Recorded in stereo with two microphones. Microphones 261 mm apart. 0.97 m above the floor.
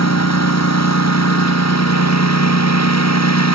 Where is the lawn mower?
80° left; by 3.5 s 85° left.